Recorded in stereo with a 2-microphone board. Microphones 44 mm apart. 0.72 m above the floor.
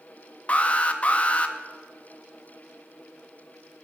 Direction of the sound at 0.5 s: 30° left (ahead or behind).